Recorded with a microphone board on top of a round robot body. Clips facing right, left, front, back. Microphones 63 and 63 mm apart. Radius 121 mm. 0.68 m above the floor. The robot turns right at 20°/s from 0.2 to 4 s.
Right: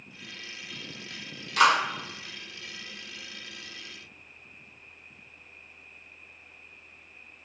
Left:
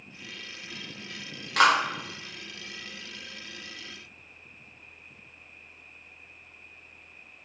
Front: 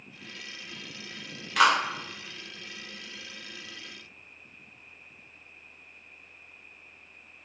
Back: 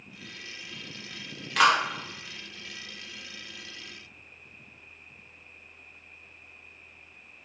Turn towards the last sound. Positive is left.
turn(degrees=135)